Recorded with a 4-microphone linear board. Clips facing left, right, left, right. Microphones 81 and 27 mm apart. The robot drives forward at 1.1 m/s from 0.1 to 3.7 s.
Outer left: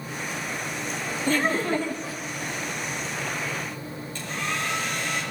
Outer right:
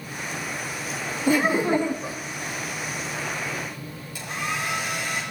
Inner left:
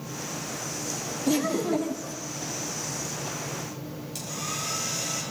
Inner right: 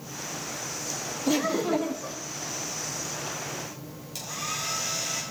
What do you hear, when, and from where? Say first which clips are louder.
1.3 s laughter: outer right 4 dB, even; 10° right (ahead or behind), 1.8 m; by 2.2 s 25° right (ahead or behind), 0.9 m
4.2 s a hair dryer: outer right 1 dB, inner right 2 dB; 10° right (ahead or behind), 8.5 m